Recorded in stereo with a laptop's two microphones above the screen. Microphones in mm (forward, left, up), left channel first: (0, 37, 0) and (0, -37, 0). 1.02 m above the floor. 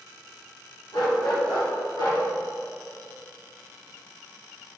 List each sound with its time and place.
0.9 s a dog barking: 75° left (ahead or behind), 2 m